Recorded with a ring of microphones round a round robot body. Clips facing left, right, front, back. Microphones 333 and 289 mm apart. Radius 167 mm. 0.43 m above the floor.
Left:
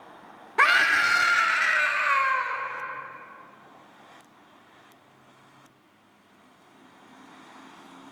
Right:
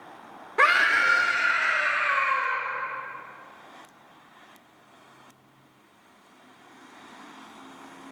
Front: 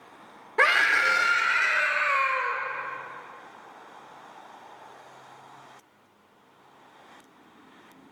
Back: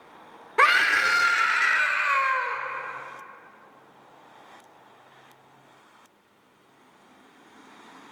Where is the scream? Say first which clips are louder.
Right 2 dB, even; 130° left, 0.8 m; by 2.6 s 120° left, 1.6 m.